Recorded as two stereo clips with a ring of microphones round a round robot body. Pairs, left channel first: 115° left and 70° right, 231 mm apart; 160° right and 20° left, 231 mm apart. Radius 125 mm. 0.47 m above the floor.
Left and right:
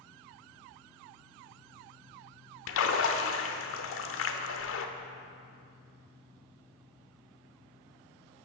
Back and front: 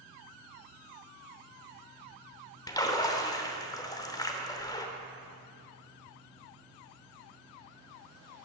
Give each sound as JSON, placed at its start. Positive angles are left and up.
{"t": 2.7, "sound": "a splash", "azimuth_deg": 130, "distance_m": 0.9}